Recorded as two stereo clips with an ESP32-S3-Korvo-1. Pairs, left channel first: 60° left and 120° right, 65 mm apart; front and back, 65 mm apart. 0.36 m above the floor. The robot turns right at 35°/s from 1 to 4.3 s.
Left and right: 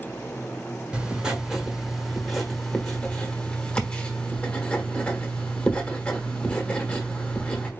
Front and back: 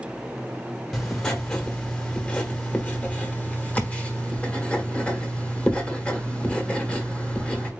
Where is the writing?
75° right, 1.3 m; by 7.7 s 40° left, 1.3 m.